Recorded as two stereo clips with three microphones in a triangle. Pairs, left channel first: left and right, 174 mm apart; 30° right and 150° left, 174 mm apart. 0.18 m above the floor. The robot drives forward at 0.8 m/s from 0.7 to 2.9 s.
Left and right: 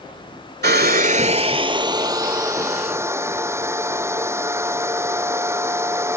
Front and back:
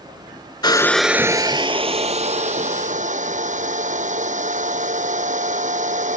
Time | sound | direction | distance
0.6 | a hair dryer | 95° right | ?